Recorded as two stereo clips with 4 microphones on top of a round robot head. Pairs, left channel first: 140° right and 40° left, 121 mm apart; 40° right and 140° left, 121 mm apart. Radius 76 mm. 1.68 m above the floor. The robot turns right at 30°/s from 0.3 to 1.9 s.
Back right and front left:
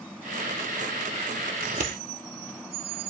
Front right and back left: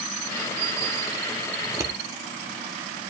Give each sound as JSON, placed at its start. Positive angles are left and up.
{"t": 1.6, "sound": "scissors", "azimuth_deg": 65, "distance_m": 0.9}